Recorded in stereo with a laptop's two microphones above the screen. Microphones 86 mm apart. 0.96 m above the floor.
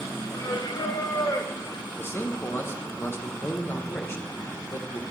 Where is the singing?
50° left (ahead or behind), 0.5 m.